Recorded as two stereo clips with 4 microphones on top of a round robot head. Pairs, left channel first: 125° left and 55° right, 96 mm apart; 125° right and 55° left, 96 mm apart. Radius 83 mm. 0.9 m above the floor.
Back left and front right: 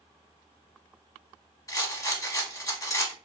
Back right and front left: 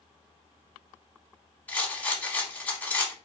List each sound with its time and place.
1.7 s a rattle: 165° left, 1.2 m